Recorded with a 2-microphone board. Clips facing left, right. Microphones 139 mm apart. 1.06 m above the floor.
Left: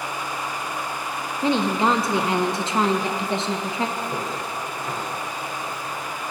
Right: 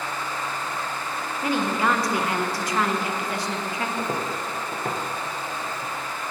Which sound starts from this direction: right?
Footsteps, at 4.0 s.